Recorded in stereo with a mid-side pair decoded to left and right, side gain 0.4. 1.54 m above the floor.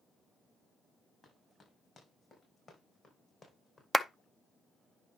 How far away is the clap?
About 0.6 m.